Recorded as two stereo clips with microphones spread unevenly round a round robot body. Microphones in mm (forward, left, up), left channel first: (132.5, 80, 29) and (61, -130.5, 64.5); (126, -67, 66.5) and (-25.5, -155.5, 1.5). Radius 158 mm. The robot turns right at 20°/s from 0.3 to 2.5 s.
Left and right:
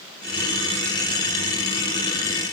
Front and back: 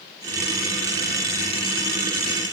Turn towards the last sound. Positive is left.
No sound to turn to.